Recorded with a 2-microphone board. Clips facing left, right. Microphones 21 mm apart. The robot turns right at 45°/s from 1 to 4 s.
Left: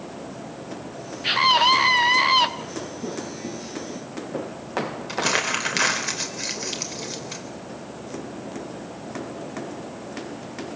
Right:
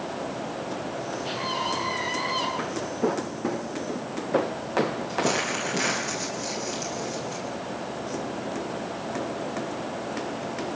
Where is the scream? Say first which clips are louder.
Left 13 dB; 70° left, 1.4 m; by 2.5 s 125° left, 1.4 m.